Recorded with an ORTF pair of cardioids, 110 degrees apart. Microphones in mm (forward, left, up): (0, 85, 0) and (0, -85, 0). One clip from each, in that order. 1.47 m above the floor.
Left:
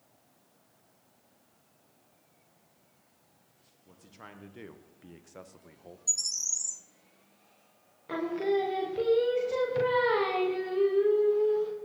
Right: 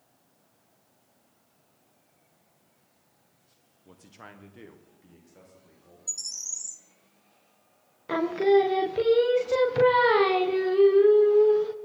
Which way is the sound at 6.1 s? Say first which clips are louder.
Left 4 dB; 15° left.